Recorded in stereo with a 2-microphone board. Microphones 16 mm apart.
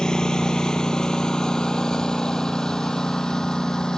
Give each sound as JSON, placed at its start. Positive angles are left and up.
{"t": 0.0, "sound": "a lawn mower", "side_deg": 60}